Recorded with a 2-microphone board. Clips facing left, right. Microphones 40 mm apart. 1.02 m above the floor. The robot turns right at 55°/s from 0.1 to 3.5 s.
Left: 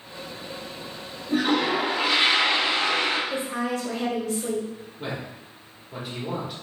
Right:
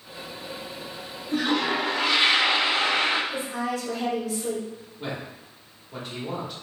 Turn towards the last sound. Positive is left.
turn(degrees=10)  # may be behind; listen again after turning